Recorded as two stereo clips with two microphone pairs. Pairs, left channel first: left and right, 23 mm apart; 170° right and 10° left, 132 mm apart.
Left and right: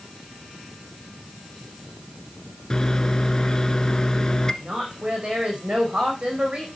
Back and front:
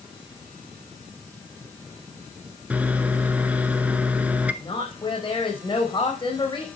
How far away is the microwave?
About 1.2 m.